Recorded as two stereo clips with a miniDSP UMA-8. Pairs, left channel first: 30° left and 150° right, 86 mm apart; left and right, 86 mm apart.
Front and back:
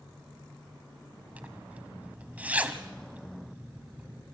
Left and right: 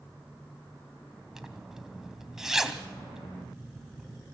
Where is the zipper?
160° right, 1.2 m.